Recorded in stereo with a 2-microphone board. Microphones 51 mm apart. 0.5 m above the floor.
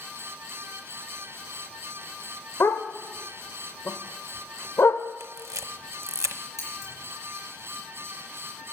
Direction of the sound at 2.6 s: 65° left (ahead or behind).